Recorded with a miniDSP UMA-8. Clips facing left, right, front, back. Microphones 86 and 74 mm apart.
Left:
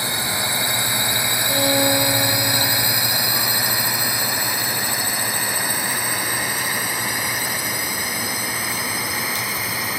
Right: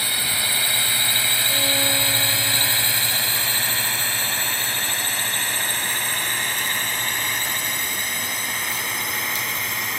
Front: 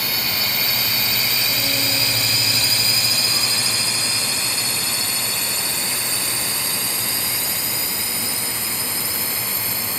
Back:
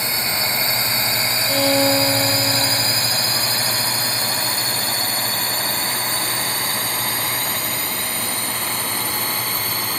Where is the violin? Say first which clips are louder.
Left 8 dB, back 9 dB; 155° left.